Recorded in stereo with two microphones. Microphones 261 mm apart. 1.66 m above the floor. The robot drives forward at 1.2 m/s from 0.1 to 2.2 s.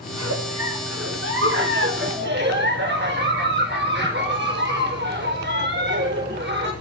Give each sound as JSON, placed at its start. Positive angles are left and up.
{"t": 0.1, "sound": "a giggle", "side_deg": -75, "distance_m": 2.5}